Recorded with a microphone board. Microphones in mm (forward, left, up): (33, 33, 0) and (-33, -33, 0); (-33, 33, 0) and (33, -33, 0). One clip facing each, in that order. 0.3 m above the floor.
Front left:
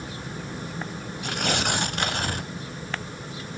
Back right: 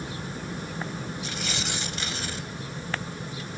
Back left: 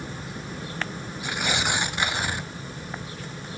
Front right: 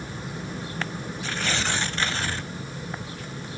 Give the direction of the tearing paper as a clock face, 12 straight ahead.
10 o'clock.